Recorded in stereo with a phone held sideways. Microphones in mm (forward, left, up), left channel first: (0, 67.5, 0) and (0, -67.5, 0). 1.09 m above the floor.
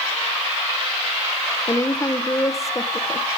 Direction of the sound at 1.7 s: 25° left (ahead or behind).